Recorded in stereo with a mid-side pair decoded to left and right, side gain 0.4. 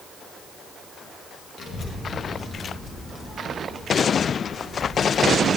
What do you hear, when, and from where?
1.6 s a child speaking: 65° left, 1.7 m; by 5.5 s 25° left, 3.5 m